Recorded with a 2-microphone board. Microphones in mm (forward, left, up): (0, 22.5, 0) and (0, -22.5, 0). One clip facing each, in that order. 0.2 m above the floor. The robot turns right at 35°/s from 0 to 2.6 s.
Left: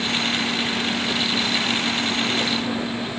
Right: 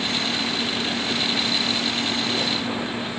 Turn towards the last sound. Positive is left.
No sound to turn to.